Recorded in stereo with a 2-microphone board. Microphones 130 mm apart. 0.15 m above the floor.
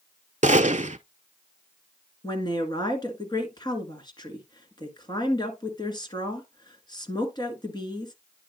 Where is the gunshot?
60° right (ahead or behind), 0.5 m.